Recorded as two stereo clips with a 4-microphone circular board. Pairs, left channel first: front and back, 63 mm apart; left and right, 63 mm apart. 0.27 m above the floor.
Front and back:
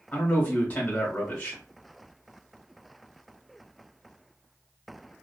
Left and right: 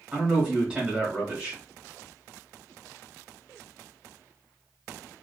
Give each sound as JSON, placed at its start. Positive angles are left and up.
{"t": 0.1, "sound": "a man speaking", "azimuth_deg": -30, "distance_m": 1.1}